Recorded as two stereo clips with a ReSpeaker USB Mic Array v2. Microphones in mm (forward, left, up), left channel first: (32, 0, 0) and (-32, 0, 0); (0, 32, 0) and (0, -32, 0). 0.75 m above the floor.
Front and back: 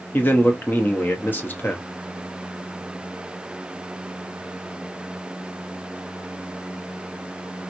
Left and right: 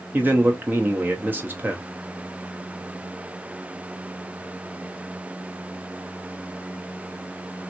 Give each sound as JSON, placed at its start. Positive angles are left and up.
{"t": 0.1, "sound": "a man speaking", "azimuth_deg": -45, "distance_m": 0.7}